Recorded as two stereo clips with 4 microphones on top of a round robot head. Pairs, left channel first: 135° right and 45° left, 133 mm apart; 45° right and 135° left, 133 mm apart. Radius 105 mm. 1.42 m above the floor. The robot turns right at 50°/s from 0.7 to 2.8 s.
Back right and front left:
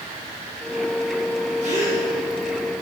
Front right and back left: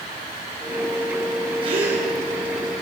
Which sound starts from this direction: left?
A gasp, at 1.6 s.